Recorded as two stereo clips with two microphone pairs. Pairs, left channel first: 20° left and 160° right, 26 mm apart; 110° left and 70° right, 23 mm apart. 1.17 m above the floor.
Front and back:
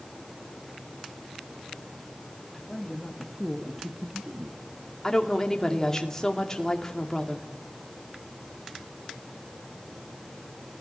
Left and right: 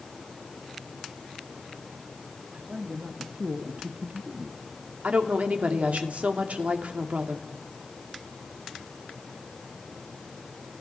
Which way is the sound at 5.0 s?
50° right.